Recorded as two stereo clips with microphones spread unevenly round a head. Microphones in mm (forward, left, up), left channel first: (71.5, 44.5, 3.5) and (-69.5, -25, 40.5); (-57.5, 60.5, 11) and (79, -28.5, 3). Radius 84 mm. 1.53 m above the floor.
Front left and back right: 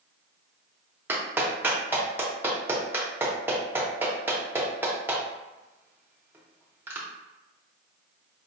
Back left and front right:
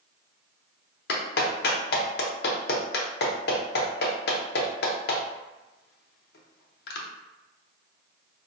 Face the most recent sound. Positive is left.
turn(degrees=135)